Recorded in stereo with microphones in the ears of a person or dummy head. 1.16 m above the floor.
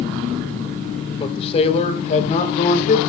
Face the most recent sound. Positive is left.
turn(degrees=45)  # may be behind; listen again after turning